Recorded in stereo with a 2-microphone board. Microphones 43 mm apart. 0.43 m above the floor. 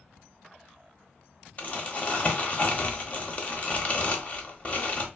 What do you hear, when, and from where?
1.6 s crumpling: 35° left (ahead or behind), 0.6 m